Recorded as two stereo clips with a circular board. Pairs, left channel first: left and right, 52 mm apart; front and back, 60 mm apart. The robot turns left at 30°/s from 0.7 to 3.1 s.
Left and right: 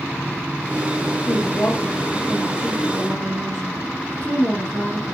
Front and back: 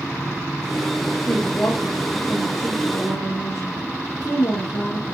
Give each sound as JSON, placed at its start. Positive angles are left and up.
{"t": 1.2, "sound": "a woman speaking", "azimuth_deg": 55, "distance_m": 6.0}